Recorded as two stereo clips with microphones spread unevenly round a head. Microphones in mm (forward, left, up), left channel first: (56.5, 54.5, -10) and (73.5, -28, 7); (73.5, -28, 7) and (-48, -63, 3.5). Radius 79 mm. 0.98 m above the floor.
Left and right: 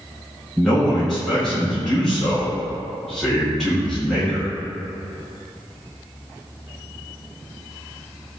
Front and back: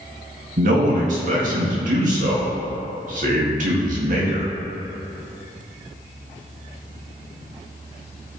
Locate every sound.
0.6 s a man speaking: 175° right, 1.8 m